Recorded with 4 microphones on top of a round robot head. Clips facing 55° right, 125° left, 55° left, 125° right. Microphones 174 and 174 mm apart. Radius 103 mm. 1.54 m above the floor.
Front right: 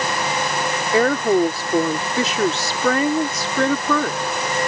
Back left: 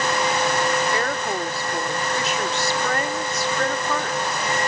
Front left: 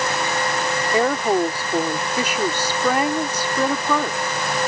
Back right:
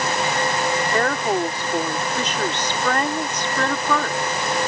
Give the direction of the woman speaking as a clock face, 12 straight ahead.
1 o'clock.